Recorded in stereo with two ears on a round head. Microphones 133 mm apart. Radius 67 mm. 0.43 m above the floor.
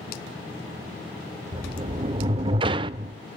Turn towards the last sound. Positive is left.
turn(degrees=-35)  # may be behind; listen again after turning